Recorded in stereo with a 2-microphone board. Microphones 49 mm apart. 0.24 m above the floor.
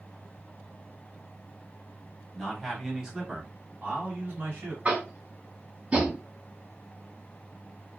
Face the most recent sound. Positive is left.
turn(degrees=-30)  # may be behind; listen again after turning